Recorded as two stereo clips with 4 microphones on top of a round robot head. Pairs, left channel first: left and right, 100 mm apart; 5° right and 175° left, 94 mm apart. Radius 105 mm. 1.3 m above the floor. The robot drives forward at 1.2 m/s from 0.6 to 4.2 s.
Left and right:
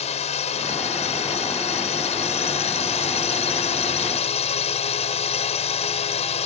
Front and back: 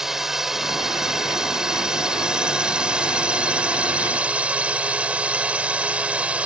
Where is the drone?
90° left; by 6.5 s 100° left.